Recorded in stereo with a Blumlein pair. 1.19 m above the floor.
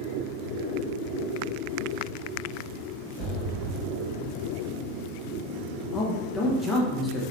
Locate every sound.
3.2 s an explosion: 35° right, 1.2 m
5.9 s a man speaking: 20° left, 0.8 m